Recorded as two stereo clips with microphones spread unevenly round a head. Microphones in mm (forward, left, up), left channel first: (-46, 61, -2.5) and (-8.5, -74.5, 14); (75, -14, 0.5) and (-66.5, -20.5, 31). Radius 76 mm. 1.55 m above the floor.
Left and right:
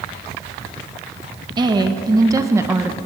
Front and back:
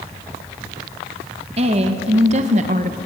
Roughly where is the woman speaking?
Behind right.